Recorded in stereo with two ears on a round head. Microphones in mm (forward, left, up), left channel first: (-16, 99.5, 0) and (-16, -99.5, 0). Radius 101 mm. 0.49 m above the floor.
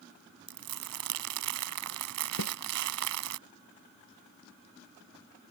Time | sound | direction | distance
0.5 | crumpling | 75° right (ahead or behind) | ?
2.4 | a snare drum | 85° left | ?